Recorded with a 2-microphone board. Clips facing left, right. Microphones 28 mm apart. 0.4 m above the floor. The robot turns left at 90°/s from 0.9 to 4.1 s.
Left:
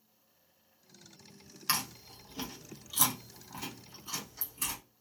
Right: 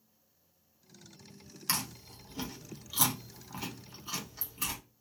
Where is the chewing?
25° left (ahead or behind), 1.1 m; by 4.8 s 15° right (ahead or behind), 1.1 m.